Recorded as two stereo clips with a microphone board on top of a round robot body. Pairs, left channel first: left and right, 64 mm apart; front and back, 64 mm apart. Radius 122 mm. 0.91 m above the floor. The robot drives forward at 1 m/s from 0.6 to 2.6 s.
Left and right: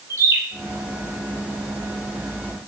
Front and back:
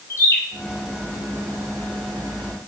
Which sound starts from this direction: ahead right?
A bird, at 0.1 s.